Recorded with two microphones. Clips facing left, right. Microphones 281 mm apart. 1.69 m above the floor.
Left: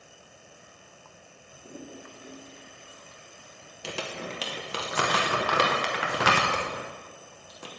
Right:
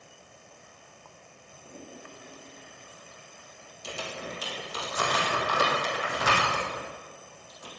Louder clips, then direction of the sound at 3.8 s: Left 2 dB; 80° left.